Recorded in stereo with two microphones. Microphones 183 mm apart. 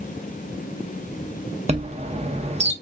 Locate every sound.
1.7 s a chime: 35° right (ahead or behind), 0.6 m